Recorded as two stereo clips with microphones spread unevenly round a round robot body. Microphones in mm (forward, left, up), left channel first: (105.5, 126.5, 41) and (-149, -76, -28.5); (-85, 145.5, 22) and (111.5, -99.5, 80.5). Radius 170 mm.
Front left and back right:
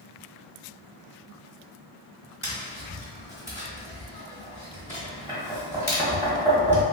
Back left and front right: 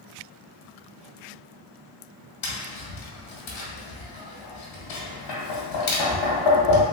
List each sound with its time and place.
2.4 s tapping: 135° left, 1.3 m